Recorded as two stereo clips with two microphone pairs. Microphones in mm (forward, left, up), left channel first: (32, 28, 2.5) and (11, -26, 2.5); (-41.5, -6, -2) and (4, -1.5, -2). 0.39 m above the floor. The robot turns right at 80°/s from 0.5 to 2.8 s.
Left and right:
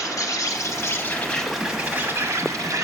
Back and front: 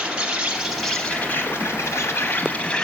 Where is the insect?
80° left, 1.0 m; by 2.8 s 100° right, 1.0 m.